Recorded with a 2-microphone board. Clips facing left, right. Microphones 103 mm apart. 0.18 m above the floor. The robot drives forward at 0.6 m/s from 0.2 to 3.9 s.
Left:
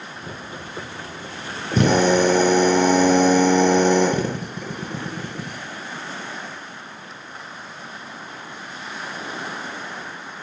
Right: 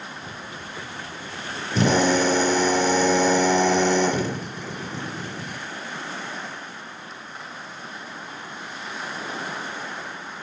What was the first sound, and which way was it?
A drill, 60° left (ahead or behind).